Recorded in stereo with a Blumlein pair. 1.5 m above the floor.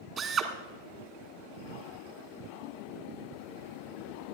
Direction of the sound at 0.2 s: 25° right.